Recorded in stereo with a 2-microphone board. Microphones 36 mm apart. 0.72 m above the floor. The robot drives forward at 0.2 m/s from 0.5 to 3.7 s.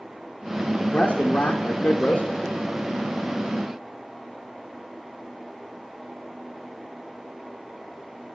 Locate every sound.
0.8 s a man speaking: 40° left (ahead or behind), 0.6 m